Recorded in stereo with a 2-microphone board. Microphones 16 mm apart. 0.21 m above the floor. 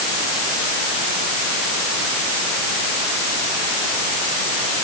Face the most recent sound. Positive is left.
No sound to turn to.